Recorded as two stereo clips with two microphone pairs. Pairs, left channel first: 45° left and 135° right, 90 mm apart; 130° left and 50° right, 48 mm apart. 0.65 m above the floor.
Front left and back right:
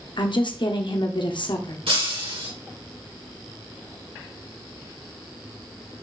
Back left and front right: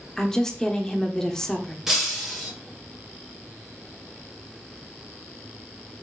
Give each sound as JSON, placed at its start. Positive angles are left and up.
{"t": 0.2, "sound": "a woman speaking", "azimuth_deg": 55, "distance_m": 1.5}
{"t": 1.9, "sound": "breaking glass", "azimuth_deg": -130, "distance_m": 4.0}